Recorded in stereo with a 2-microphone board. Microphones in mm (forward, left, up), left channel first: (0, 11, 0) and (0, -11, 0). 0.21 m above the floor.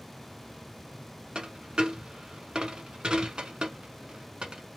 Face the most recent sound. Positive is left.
turn(degrees=-50)  # may be behind; listen again after turning